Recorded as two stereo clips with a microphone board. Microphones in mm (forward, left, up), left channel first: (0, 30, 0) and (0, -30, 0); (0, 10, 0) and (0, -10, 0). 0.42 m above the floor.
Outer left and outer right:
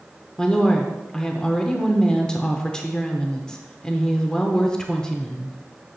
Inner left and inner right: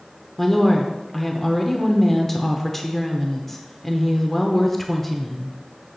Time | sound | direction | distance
0.4 | a woman speaking | 10° left (ahead or behind) | 0.7 m